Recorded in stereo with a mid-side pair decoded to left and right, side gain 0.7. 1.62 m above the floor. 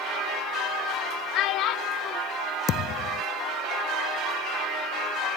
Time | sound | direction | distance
1.3 | a child speaking | 60° left | ?
2.7 | a thud | 50° left | ?